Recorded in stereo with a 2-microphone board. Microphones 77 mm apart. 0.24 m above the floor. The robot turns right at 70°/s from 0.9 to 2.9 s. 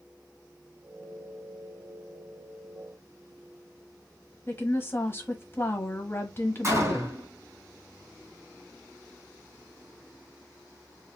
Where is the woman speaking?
30° left (ahead or behind), 1.1 m.